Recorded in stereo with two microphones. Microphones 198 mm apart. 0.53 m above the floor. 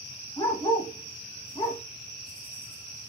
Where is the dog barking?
25° left (ahead or behind), 1.1 m.